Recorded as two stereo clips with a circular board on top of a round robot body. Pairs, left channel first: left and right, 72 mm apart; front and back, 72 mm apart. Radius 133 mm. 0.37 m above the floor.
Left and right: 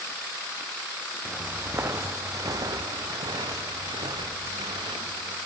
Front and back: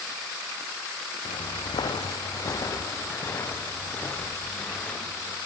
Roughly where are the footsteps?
Ahead.